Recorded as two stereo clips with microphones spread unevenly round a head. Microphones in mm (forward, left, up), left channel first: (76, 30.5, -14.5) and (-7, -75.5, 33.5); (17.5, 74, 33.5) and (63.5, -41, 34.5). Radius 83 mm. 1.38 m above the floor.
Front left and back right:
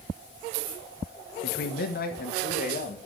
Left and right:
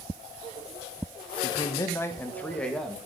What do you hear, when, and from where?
1.4 s a man speaking: 55° left, 1.1 m; by 3.0 s 25° left, 1.9 m